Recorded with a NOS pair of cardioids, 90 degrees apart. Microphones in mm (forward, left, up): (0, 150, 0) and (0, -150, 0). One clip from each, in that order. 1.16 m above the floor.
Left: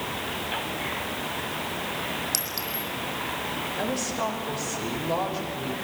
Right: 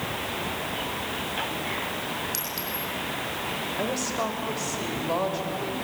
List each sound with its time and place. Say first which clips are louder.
2.3 s a clink: left 1 dB; 35° left, 6 m
3.8 s a woman speaking: even; 15° right, 5.5 m